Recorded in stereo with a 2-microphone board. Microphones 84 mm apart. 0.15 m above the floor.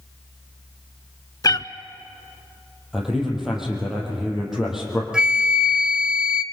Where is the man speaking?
5° right (ahead or behind), 5.5 m.